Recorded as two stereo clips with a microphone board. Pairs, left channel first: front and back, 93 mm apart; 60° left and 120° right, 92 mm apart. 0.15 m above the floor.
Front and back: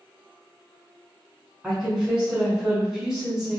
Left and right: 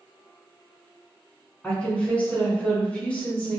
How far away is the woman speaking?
About 1.1 m.